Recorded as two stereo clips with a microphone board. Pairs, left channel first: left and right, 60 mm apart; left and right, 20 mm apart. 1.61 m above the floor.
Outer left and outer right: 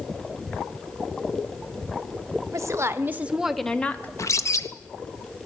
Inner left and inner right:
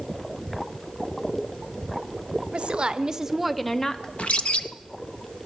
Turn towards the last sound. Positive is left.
turn(degrees=60)  # may be behind; listen again after turning